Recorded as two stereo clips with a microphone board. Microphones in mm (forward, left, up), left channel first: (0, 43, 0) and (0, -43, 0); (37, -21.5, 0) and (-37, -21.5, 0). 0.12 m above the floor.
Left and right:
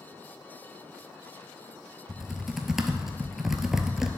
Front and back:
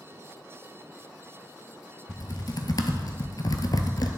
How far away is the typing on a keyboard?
About 0.8 m.